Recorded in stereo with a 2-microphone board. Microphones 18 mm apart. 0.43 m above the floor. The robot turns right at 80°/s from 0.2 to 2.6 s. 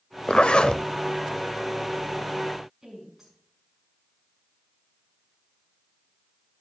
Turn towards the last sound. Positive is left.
turn(degrees=-15)  # may be behind; listen again after turning